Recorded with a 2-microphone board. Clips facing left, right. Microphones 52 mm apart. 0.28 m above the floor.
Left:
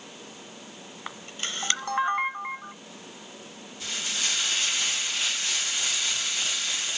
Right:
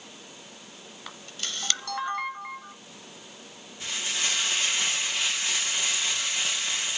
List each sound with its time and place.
1.1 s a camera shutter: 30° left (ahead or behind), 0.6 m
3.8 s frying: 30° right (ahead or behind), 4.5 m